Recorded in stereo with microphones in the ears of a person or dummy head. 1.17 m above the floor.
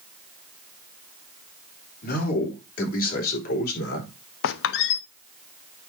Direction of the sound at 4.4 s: 70° left (ahead or behind).